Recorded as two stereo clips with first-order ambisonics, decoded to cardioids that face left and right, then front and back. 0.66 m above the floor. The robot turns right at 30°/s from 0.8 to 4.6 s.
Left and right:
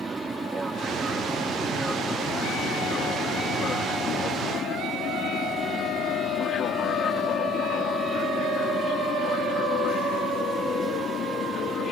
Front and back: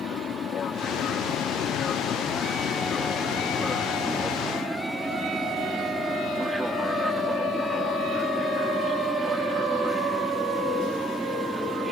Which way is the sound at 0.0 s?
20° right.